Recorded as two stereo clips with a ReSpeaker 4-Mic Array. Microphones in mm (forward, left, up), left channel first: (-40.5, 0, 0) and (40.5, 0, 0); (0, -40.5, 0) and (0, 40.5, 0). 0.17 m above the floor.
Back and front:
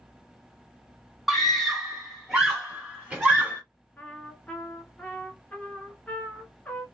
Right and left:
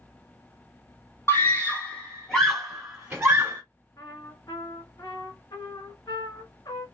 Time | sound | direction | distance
1.3 | a scream | 85° right | 1.4 m
4.0 | a trumpet | 110° right | 1.2 m